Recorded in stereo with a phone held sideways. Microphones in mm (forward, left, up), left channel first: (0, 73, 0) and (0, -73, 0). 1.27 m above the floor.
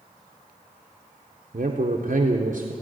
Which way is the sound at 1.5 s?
60° right (ahead or behind).